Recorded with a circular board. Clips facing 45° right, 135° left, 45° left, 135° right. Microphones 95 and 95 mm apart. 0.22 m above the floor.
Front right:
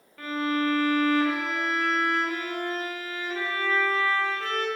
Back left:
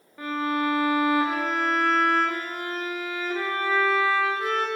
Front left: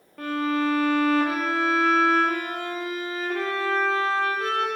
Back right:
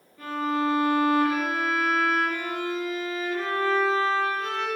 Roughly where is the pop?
I don't hear a pop.